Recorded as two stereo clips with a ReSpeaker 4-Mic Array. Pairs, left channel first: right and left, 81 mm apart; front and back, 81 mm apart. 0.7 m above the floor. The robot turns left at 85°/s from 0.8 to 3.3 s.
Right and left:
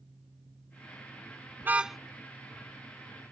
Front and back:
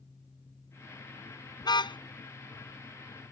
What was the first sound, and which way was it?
A car horn, 30° left.